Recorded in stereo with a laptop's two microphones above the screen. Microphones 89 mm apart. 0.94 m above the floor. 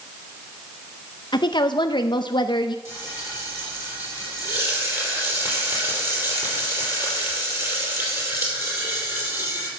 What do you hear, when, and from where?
1.3 s a woman speaking: 55° left (ahead or behind), 0.6 m
2.9 s frying: 30° right (ahead or behind), 5.5 m